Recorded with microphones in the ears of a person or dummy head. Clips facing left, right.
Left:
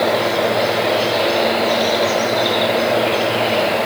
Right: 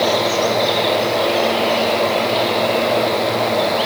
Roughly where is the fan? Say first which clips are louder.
Even; centre.